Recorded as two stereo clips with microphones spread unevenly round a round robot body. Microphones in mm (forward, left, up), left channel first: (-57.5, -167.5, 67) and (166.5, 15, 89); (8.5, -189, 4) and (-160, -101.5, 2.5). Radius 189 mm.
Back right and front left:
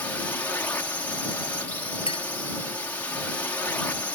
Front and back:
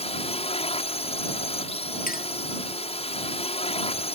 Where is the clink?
70° right.